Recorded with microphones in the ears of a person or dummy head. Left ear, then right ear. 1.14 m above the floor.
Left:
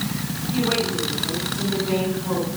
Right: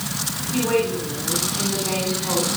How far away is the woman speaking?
About 6.5 m.